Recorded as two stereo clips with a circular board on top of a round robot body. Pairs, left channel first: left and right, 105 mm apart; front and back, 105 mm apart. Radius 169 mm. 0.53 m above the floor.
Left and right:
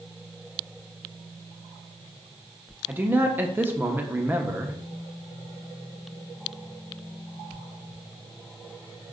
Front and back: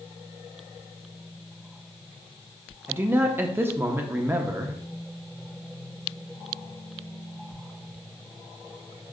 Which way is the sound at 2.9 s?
140° right.